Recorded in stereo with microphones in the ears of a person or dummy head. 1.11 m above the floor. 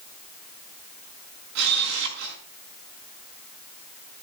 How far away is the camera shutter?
About 5.5 m.